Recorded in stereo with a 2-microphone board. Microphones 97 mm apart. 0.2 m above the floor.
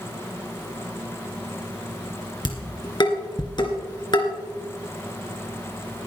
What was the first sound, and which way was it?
Dishes clattering, 50° left (ahead or behind).